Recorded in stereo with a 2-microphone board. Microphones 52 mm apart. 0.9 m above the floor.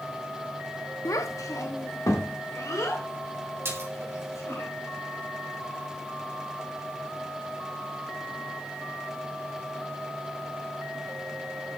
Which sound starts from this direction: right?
A splash, at 3.6 s.